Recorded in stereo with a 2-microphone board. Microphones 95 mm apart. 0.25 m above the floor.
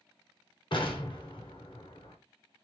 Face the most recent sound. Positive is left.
turn(degrees=55)  # may be behind; listen again after turning